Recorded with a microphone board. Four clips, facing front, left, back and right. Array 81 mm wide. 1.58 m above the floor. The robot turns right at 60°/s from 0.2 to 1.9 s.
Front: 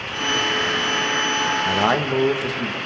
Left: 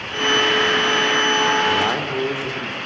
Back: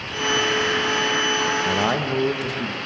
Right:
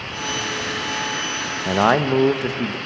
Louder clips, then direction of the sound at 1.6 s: Right 3 dB, front 2 dB; 95° right.